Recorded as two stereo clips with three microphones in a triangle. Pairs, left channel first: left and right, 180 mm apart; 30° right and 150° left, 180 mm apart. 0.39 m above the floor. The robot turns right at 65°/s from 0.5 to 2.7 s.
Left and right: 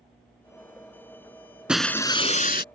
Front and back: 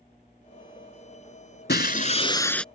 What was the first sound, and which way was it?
Breaking glass, 5° right.